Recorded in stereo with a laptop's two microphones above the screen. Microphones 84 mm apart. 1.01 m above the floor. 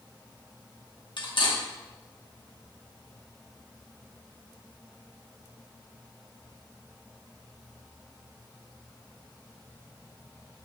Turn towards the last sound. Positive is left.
turn(degrees=70)  # may be behind; listen again after turning